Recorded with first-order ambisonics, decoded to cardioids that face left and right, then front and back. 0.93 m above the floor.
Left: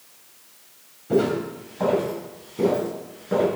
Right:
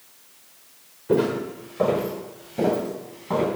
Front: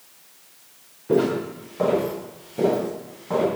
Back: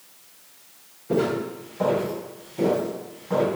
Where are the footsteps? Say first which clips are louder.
Even, front 3 dB; 50° right, 4.5 m; by 3.5 s 65° right, 5 m.